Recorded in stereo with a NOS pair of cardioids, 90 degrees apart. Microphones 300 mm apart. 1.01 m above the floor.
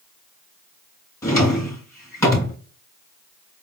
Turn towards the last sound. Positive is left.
turn(degrees=10)